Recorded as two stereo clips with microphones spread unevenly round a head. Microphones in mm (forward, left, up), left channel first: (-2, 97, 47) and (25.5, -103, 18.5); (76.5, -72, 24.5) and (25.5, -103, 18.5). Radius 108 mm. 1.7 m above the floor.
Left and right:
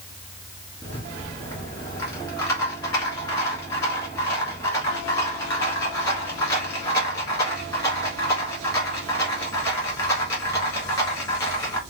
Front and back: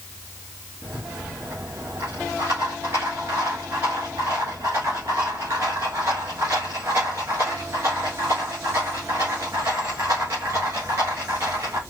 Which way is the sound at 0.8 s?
155° left.